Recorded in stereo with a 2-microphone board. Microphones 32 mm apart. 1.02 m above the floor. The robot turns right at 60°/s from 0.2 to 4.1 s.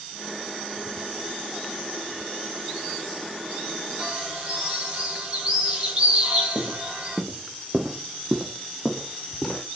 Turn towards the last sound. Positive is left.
turn(degrees=10)  # may be behind; listen again after turning